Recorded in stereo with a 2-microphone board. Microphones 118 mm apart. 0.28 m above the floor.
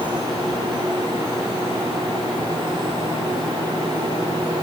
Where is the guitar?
I don't hear a guitar.